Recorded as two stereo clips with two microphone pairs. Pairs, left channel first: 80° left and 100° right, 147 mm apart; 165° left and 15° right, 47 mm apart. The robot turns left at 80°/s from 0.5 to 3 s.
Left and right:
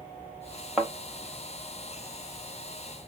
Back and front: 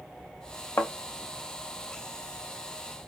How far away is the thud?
About 0.7 m.